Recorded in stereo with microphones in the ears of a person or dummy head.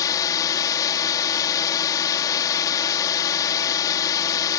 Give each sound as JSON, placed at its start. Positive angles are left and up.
{"t": 0.0, "sound": "a drone", "side_deg": 25}